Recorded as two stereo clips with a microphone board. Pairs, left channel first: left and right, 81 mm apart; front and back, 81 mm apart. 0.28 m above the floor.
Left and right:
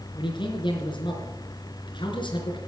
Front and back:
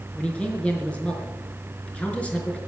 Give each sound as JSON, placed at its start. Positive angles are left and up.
{"t": 0.1, "sound": "a man speaking", "azimuth_deg": 75, "distance_m": 4.0}